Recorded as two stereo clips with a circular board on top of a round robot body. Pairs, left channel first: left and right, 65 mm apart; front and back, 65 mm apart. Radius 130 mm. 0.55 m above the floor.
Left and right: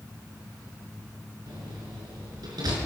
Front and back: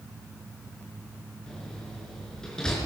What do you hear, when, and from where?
1.5 s a door slam: 80° right, 5.5 m